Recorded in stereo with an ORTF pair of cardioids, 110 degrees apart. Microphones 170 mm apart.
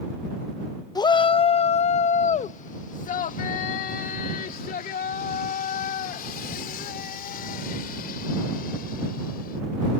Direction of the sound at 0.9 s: 20° left.